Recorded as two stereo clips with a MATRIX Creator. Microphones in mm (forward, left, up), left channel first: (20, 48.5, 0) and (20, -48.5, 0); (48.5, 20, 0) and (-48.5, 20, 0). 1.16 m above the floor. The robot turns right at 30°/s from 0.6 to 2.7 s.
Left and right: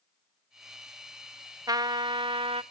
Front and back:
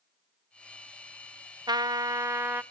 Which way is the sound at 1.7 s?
140° right.